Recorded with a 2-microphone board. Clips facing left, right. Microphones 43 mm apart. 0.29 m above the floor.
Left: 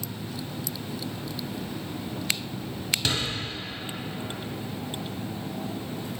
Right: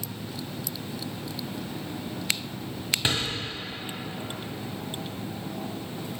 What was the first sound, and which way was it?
A door slam, 20° right (ahead or behind).